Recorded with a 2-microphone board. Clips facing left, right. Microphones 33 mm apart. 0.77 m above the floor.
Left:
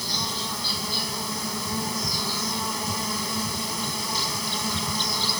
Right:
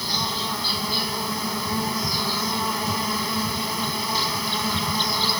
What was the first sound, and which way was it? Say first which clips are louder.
An insect: right 3 dB; 15° right (ahead or behind).